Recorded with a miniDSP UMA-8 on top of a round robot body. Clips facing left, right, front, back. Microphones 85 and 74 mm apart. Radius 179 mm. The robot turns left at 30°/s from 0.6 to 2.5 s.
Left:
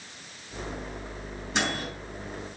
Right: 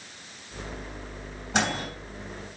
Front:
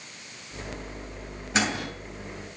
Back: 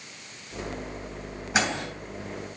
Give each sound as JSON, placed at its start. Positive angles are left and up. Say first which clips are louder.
{"t": 1.5, "sound": "a microwave", "louder": "right 3 dB, even", "azimuth_deg": -105, "distance_m": 3.0}